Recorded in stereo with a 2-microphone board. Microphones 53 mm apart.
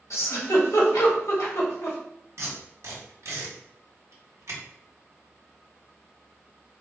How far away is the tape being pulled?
About 1.6 m.